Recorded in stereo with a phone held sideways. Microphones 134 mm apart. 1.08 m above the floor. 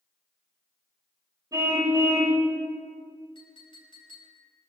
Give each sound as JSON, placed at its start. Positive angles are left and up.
{"t": 1.5, "sound": "a car horn", "side_deg": -25, "distance_m": 3.0}
{"t": 3.4, "sound": "a clink", "side_deg": 40, "distance_m": 5.0}